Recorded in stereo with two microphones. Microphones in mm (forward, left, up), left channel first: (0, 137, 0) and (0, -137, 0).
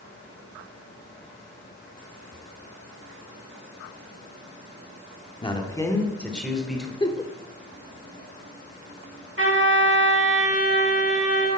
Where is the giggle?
15° left (ahead or behind), 0.9 m.